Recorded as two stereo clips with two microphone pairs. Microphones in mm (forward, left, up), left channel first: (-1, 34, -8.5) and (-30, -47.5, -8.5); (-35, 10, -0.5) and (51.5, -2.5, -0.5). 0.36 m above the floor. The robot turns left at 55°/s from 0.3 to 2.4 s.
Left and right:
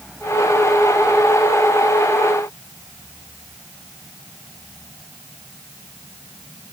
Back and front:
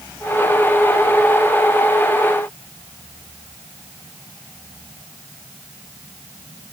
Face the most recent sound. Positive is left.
No sound to turn to.